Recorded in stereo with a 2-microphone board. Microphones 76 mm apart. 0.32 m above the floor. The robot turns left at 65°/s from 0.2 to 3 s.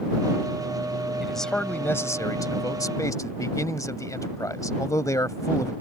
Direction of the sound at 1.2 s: 175° right.